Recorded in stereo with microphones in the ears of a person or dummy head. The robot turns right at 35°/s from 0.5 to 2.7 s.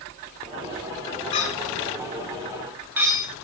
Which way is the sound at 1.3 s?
40° left (ahead or behind).